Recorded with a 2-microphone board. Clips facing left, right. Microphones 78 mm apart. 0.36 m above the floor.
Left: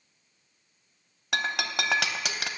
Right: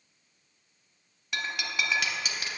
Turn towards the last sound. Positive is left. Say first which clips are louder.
# left 4 dB
turn(degrees=75)  # may be behind; listen again after turning